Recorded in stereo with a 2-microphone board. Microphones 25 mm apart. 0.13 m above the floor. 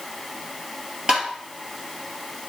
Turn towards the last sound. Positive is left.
turn(degrees=-30)  # may be behind; listen again after turning